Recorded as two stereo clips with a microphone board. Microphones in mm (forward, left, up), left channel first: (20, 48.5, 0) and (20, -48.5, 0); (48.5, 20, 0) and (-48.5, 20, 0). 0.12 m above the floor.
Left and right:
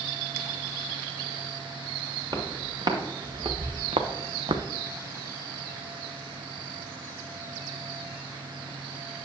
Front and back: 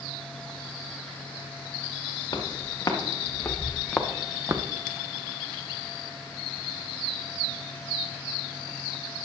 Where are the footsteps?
45° right, 2.5 m; by 4.6 s 130° right, 1.1 m.